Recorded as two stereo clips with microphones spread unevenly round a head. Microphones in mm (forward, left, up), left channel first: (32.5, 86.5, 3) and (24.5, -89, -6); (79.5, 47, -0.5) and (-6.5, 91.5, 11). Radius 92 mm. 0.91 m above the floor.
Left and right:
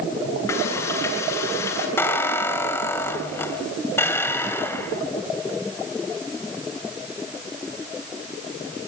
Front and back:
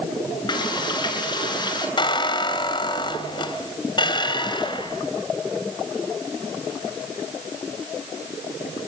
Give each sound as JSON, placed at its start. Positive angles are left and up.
{"t": 0.5, "sound": "frying", "azimuth_deg": 15, "distance_m": 9.0}
{"t": 2.0, "sound": "a squeak", "azimuth_deg": 10, "distance_m": 2.5}